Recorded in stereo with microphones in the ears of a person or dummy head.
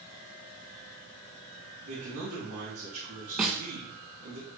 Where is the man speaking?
40° right (ahead or behind), 3.5 m.